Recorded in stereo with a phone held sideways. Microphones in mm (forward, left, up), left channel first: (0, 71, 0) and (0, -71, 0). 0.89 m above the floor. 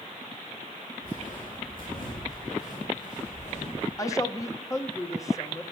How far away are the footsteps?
About 5 m.